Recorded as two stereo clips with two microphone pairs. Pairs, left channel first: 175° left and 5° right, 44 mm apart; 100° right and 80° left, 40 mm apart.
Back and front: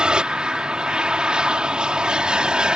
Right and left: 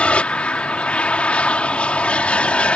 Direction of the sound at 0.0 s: 60° right.